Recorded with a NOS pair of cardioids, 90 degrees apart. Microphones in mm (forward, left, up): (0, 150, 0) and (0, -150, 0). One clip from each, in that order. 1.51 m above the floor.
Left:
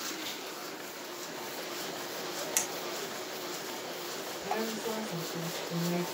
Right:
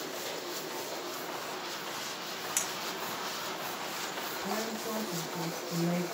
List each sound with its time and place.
2.6 s a clink: 25° left, 3 m
4.4 s a woman speaking: 40° left, 5 m